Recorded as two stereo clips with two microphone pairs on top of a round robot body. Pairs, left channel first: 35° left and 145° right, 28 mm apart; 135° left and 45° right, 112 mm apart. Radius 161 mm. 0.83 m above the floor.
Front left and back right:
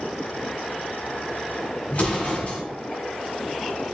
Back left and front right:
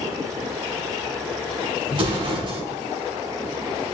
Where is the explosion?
Straight ahead, 2.5 m.